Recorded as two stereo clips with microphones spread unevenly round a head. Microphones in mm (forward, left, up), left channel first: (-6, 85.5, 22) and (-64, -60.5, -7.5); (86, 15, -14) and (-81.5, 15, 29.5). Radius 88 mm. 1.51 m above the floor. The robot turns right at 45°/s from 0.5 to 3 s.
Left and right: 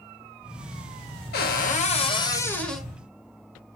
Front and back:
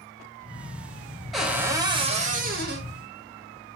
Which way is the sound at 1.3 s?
90° left.